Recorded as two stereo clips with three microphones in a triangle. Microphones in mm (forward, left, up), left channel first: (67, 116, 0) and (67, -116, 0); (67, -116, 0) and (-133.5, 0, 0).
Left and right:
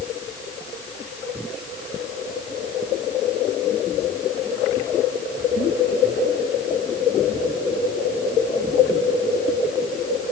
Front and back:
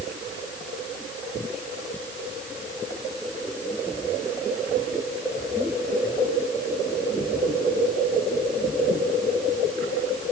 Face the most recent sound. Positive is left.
No sound to turn to.